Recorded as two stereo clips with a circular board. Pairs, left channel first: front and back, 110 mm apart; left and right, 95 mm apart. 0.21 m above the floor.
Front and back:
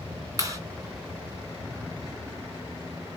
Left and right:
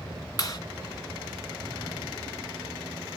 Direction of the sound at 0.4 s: 130° left.